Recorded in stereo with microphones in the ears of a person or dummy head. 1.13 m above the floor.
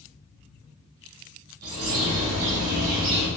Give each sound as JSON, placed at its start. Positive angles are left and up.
{"t": 1.6, "sound": "a bird", "side_deg": -75, "distance_m": 2.0}